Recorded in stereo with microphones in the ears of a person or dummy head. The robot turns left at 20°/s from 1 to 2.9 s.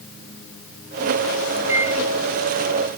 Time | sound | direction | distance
1.7 | a microwave | 5° right (ahead or behind) | 0.6 m